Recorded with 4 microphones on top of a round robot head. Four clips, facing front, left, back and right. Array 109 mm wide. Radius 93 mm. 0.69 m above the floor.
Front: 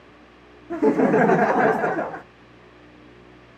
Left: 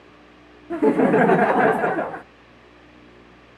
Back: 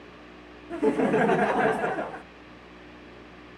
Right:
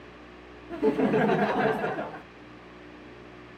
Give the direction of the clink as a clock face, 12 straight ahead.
I don't hear a clink.